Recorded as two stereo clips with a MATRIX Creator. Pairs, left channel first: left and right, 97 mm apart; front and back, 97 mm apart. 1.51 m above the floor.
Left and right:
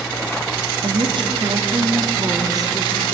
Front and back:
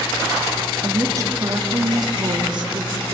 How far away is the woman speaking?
About 3 m.